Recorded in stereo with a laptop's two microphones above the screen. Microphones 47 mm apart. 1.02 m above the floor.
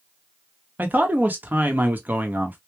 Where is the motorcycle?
I don't hear a motorcycle.